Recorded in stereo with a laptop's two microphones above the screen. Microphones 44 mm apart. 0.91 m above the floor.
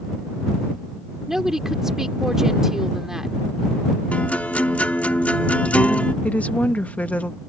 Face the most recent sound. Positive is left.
turn(degrees=35)  # may be behind; listen again after turning